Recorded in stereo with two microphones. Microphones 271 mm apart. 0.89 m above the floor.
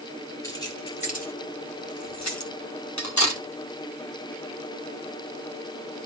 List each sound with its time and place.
0.4 s keys jangling: 10° left (ahead or behind), 3 m; by 2.5 s 80° left, 1.9 m
3.0 s cutlery clinking: 85° left, 1.6 m